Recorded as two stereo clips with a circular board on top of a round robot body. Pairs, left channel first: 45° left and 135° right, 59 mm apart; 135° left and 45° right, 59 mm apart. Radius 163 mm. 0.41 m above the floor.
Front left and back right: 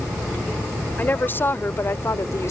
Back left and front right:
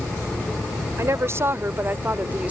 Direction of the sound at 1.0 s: 10° right.